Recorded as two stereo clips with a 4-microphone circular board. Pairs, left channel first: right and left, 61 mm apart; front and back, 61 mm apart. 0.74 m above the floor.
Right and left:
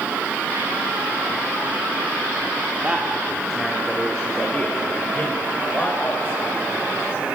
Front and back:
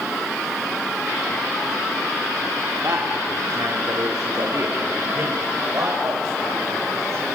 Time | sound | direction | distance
2.8 | a man speaking | 155° left | 1.4 m